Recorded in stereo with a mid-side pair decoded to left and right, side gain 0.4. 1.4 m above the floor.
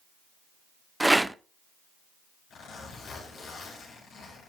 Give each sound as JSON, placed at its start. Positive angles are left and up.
{"t": 1.0, "sound": "a rattle", "azimuth_deg": -10, "distance_m": 0.6}
{"t": 2.5, "sound": "a zipper", "azimuth_deg": 70, "distance_m": 7.0}